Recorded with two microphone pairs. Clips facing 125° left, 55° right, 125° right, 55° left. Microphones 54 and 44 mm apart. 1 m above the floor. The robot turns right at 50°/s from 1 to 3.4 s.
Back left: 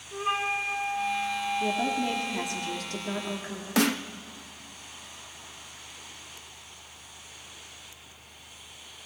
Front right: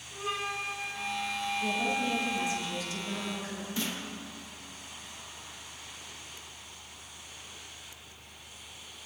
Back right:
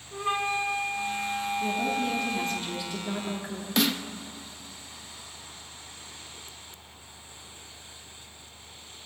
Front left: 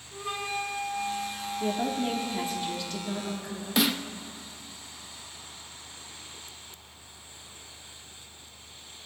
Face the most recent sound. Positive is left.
turn(degrees=140)